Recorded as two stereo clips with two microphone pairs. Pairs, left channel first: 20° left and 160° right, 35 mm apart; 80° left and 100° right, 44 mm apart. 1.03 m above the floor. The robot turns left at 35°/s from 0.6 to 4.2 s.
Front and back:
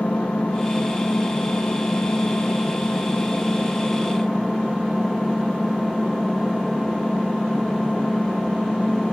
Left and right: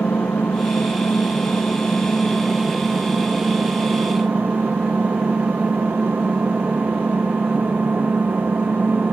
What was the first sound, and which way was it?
An engine running, 65° left.